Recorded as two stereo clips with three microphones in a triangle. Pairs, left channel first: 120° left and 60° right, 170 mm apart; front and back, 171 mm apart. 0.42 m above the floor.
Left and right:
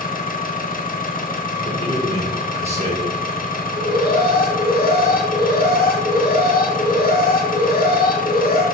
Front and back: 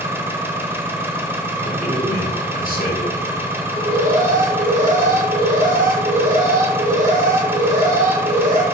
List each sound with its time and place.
0.0 s an engine running: 105° left, 0.9 m
1.6 s a man speaking: 15° right, 2.5 m
3.7 s an alarm: 140° left, 1.5 m